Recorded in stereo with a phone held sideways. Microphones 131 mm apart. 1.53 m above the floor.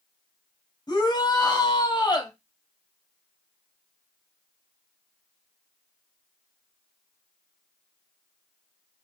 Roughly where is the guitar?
I don't hear a guitar.